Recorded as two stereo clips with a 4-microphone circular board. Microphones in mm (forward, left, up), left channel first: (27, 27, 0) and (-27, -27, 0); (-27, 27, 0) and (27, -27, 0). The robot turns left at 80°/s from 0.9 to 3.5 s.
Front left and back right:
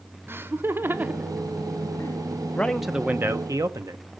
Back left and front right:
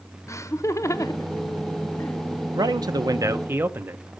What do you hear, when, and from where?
0.3 s laughter: 175° left, 0.8 m; by 2.2 s 70° left, 0.8 m
2.5 s a man speaking: 25° right, 0.9 m; by 4.2 s 100° right, 0.9 m